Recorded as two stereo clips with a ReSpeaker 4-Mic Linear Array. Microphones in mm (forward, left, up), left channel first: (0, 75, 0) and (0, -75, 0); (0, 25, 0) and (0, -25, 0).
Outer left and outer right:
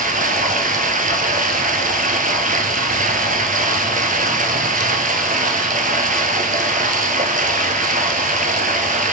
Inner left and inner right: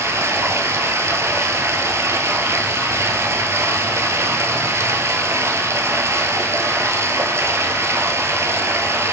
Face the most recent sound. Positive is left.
turn(degrees=-65)  # may be behind; listen again after turning